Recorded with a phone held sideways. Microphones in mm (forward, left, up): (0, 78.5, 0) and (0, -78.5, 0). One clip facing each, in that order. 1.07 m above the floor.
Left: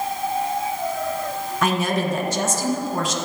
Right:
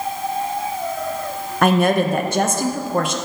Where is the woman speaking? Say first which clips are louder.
Right 7 dB; 60° right (ahead or behind), 0.8 m.